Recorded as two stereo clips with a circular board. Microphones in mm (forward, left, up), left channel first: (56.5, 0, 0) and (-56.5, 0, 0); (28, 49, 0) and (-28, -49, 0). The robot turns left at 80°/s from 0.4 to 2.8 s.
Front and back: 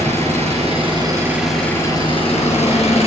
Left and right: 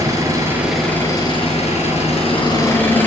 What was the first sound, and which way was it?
An engine running, straight behind.